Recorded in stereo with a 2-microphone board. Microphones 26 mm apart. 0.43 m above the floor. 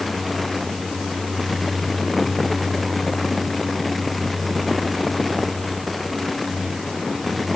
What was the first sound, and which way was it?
Only background noise.